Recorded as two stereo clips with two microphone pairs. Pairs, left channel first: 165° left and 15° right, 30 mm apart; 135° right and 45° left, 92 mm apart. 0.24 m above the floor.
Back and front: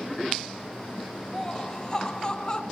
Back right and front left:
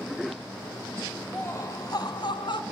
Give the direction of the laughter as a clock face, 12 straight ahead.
5 o'clock.